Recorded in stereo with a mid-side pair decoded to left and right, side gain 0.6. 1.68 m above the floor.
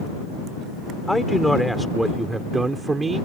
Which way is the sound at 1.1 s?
5° left.